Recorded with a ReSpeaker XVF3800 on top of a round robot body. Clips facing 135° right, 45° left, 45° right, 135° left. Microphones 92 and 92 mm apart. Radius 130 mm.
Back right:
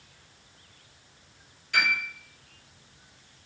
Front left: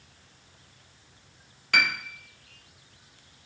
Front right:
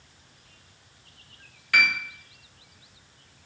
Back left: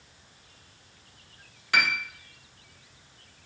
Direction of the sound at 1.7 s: 70° left.